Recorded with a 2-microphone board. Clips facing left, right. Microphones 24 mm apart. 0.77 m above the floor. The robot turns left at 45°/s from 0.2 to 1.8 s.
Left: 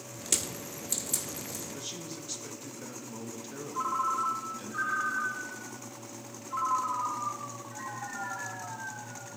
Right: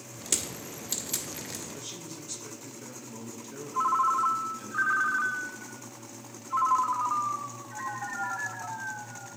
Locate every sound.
0.3 s crushing: 5° left (ahead or behind), 1.1 m; by 1.6 s 50° right (ahead or behind), 1.1 m
1.7 s a man speaking: 20° left (ahead or behind), 1.2 m; by 4.7 s 25° left (ahead or behind), 1.2 m
3.7 s a ringtone: 20° right (ahead or behind), 0.8 m